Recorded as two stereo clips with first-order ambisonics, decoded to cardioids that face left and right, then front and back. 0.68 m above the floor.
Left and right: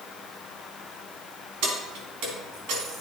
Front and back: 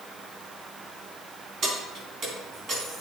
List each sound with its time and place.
1.6 s keys jangling: 120° right, 4 m